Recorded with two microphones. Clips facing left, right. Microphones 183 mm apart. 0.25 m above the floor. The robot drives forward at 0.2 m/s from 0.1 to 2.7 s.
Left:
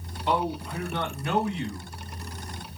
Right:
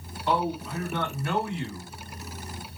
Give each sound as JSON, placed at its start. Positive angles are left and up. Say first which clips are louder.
{"t": 0.3, "sound": "a man speaking", "louder": "even", "side_deg": 20, "distance_m": 2.0}